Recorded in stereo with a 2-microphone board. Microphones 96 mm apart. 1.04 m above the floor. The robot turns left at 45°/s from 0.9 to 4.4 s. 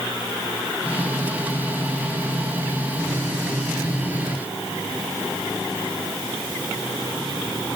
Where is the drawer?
I don't hear a drawer.